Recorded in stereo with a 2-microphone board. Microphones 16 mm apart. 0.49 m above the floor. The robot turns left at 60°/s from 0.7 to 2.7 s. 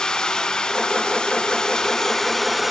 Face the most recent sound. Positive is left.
turn(degrees=10)